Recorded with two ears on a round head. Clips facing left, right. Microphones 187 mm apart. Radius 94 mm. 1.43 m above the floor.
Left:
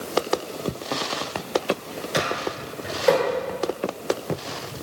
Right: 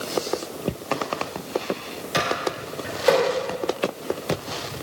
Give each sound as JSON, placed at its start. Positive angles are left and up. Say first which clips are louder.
{"t": 2.1, "sound": "a microwave", "louder": "right 1 dB", "side_deg": 0, "distance_m": 7.0}